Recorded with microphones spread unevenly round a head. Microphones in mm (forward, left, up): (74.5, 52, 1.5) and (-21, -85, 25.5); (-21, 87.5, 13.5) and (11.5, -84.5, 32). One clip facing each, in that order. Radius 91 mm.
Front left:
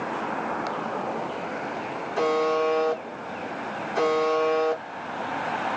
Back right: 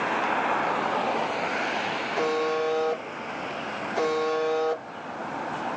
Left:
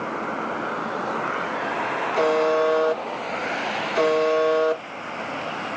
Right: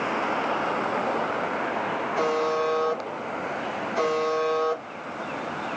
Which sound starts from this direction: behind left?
A buzzer, at 2.2 s.